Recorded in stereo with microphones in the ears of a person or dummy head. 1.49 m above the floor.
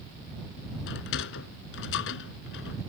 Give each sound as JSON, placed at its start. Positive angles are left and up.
{"t": 0.9, "sound": "a sliding door", "side_deg": 65}